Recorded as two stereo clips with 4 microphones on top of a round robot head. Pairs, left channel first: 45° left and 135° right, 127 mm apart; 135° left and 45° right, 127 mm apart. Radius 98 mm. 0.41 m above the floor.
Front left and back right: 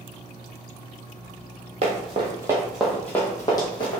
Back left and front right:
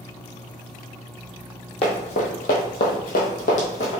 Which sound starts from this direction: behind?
Running footsteps, at 1.8 s.